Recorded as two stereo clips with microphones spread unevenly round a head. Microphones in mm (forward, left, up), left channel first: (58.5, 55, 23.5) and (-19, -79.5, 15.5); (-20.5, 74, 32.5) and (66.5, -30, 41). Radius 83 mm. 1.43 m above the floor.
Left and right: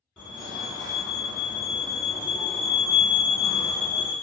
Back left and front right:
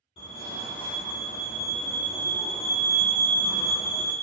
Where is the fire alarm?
145° left, 1.0 m.